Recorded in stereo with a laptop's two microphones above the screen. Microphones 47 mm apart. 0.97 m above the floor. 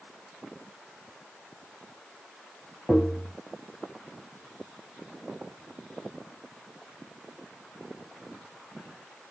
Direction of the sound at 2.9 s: 10° left (ahead or behind).